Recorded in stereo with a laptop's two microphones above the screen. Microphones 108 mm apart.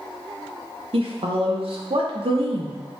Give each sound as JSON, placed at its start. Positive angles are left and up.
{"t": 0.9, "sound": "a woman speaking", "side_deg": -60, "distance_m": 0.6}